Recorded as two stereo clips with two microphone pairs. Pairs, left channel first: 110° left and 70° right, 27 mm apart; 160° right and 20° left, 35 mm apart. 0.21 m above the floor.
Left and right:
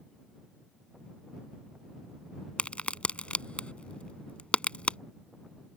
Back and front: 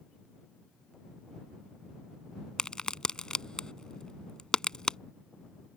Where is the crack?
135° left.